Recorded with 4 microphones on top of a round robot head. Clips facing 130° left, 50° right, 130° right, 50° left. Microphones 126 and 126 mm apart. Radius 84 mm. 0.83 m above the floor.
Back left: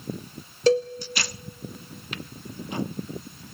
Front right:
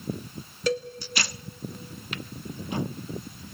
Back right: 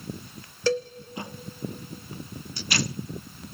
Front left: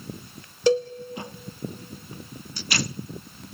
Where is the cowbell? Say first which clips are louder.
Back left 8 dB, front left 5 dB; 105° left, 0.6 m.